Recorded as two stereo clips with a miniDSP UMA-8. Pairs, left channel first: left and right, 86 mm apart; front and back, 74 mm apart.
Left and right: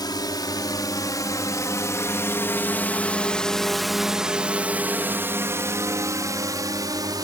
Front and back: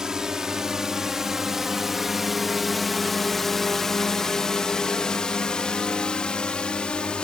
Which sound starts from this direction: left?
A drone, at 0.0 s.